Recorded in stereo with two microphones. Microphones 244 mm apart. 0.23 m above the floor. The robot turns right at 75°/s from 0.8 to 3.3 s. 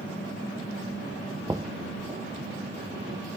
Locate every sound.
1.5 s knocking: 15° right (ahead or behind); by 1.7 s 5° left (ahead or behind)